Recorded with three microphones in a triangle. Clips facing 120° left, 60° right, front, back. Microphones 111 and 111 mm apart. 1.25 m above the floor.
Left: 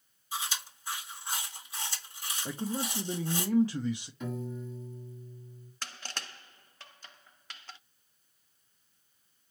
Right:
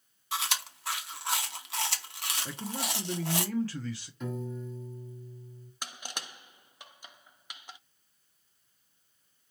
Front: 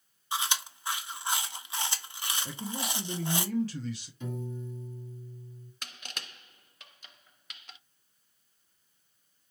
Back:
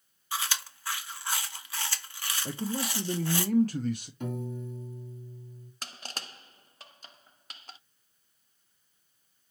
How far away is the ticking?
No ticking in this recording.